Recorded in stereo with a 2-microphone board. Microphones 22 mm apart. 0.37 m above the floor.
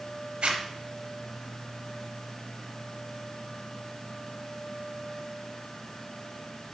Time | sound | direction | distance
0.4 | a zipper | 55° right (ahead or behind) | 3 m